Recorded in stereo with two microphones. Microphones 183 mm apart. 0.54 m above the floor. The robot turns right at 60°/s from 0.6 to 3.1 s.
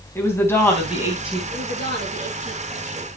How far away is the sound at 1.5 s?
About 6.5 m.